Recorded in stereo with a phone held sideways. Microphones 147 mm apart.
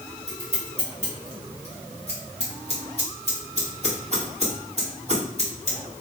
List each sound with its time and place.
0.3 s scissors: 50° right (ahead or behind), 1.3 m